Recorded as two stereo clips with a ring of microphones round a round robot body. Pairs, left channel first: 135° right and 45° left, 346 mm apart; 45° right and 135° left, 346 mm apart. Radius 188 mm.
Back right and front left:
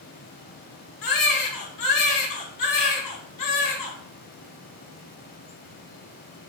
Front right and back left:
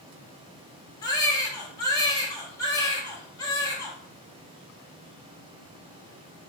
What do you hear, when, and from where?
1.0 s a baby crying: 125° right, 1.1 m